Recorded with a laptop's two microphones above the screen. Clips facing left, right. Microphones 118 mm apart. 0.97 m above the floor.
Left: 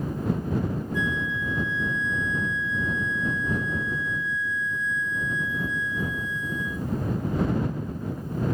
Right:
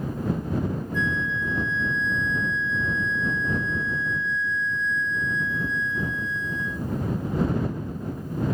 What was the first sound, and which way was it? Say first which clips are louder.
A flute: right 1 dB; 15° left (ahead or behind).